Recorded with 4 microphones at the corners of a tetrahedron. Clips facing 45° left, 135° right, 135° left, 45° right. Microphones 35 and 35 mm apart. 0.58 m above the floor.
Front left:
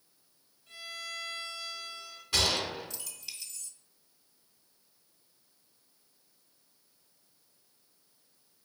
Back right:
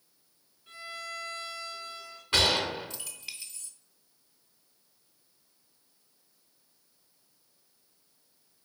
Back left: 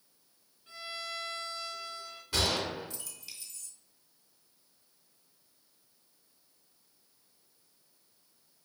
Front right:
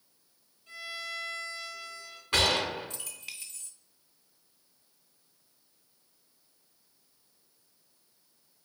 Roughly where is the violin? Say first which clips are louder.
Back right 2 dB, front right 2 dB; behind.